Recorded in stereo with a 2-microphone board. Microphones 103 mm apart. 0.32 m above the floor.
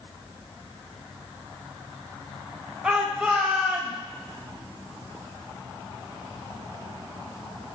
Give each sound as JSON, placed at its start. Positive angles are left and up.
{"t": 2.8, "sound": "a shout", "side_deg": -10, "distance_m": 1.3}